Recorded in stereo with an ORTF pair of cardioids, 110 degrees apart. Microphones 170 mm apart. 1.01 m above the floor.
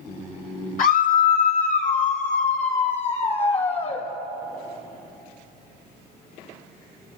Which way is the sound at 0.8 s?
55° left.